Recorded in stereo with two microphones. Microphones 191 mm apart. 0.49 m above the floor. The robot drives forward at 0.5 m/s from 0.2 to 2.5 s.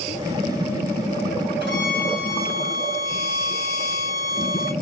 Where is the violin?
70° right (ahead or behind), 3.5 m; by 4.7 s 65° right (ahead or behind), 3.5 m.